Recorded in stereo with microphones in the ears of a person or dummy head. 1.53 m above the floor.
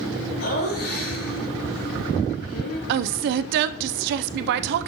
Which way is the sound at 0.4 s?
80° left.